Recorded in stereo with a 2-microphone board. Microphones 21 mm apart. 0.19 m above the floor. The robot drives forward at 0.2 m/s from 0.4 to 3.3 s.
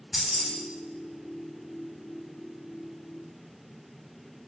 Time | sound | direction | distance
0.1 | keys jangling | 15° right (ahead or behind) | 1.0 m